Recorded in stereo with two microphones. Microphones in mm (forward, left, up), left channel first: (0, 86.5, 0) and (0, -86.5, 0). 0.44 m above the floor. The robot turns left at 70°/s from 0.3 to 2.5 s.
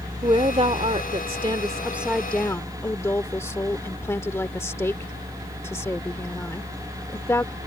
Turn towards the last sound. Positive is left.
turn(degrees=155)